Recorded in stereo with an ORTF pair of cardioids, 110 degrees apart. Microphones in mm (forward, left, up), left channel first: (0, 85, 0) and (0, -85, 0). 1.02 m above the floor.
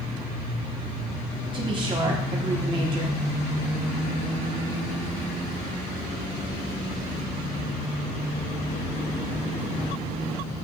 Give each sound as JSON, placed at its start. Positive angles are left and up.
{"t": 1.5, "sound": "a woman speaking", "azimuth_deg": -30, "distance_m": 1.3}